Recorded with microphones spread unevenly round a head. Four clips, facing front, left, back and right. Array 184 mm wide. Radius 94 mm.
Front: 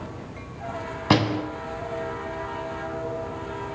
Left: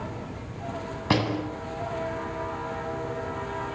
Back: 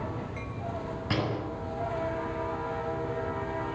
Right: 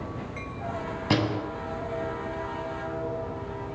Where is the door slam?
10° left, 8 m.